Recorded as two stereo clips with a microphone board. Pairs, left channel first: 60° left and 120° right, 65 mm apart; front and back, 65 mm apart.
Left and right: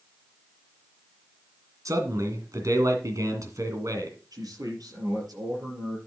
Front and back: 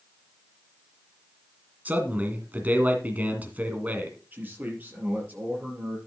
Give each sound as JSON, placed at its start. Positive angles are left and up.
{"t": 1.9, "sound": "a man speaking", "azimuth_deg": -120, "distance_m": 2.0}
{"t": 4.3, "sound": "a man speaking", "azimuth_deg": -120, "distance_m": 5.5}